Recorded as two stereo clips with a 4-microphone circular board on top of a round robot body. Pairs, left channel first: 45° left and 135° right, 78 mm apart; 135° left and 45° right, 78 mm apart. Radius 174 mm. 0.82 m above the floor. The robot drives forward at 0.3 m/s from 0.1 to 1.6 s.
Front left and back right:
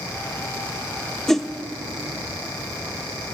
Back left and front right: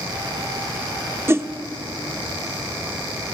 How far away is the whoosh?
About 0.6 m.